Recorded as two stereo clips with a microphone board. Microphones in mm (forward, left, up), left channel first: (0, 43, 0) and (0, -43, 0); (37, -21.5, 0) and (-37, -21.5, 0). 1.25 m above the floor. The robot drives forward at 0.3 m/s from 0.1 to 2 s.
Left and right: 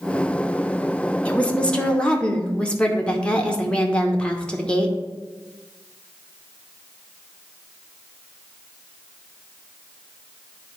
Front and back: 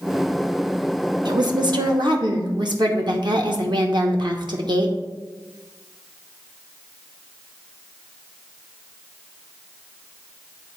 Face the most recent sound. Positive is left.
turn(degrees=170)